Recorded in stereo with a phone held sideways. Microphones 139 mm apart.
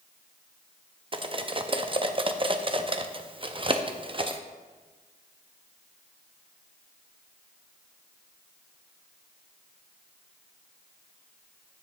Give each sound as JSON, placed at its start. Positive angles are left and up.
{"t": 1.1, "sound": "cutlery clinking", "side_deg": -35, "distance_m": 0.5}